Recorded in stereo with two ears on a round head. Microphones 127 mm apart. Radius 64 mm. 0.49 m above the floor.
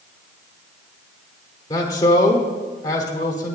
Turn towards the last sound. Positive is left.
turn(degrees=25)  # may be behind; listen again after turning